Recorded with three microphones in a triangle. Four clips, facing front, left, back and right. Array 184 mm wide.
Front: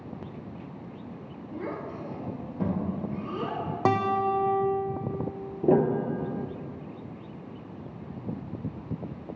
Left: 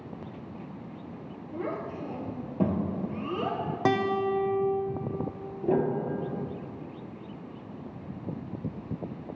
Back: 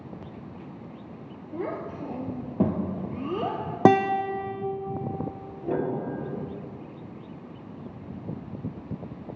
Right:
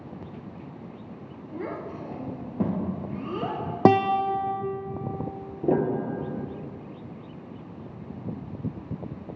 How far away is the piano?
About 1.2 m.